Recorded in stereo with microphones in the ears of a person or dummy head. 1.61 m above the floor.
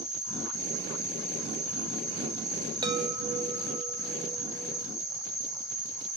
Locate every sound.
0.0 s an insect: 20° left (ahead or behind), 6 m
2.8 s a chime: 20° right (ahead or behind), 1.0 m